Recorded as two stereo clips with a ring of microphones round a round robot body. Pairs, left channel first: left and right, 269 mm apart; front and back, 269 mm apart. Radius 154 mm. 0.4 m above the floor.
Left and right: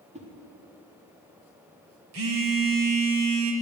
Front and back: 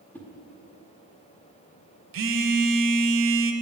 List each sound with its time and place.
0.1 s a whoosh: 75° right, 1.6 m
2.1 s a phone buzzing: 135° right, 0.9 m